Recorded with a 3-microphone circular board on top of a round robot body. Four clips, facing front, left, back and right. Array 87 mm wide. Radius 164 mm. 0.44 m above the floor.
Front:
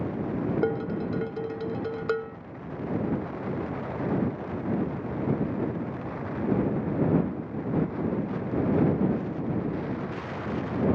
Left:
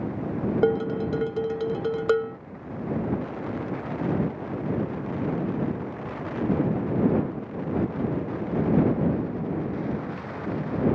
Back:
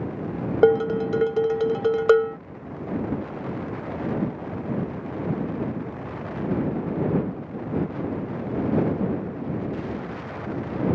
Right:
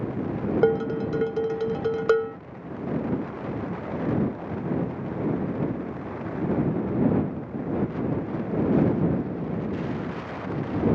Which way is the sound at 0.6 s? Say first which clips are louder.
Right 1 dB, back 9 dB; 175° right.